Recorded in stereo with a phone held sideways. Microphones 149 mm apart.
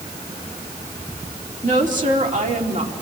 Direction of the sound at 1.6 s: 55° right (ahead or behind).